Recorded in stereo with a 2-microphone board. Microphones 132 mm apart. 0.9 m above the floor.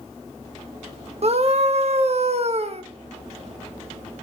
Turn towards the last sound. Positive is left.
turn(degrees=-50)  # may be behind; listen again after turning